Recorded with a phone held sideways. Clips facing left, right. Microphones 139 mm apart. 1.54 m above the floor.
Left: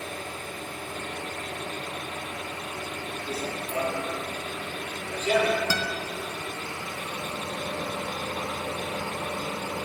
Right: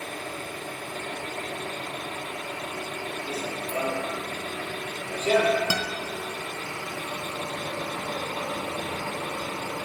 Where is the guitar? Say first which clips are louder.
Even; 15° right (ahead or behind), 0.6 m.